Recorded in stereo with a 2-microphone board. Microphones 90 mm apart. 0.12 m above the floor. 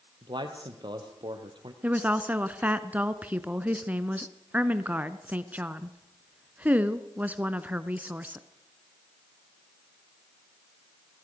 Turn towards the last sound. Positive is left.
turn(degrees=-15)  # may be behind; listen again after turning